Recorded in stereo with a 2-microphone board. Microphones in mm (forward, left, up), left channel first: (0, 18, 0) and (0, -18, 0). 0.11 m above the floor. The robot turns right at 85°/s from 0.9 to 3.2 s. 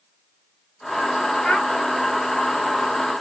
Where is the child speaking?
20° left (ahead or behind), 1.3 m; by 1.7 s 25° left (ahead or behind), 1.3 m.